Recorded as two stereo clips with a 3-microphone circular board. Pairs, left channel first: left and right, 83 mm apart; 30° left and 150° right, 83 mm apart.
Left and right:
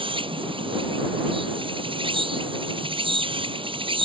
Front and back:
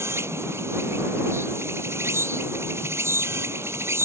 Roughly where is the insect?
Right.